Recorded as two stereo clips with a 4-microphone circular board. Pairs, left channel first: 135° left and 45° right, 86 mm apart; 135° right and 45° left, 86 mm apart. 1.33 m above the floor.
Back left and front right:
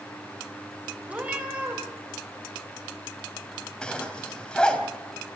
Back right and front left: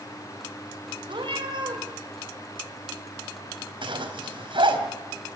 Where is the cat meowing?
30° left, 4 m.